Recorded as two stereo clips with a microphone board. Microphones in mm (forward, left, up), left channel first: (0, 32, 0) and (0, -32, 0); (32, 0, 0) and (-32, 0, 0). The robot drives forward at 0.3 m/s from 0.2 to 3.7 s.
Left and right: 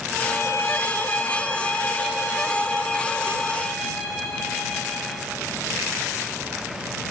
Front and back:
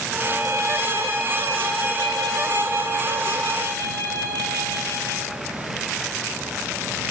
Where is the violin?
135° left, 0.8 m; by 5.3 s 160° left, 1.7 m.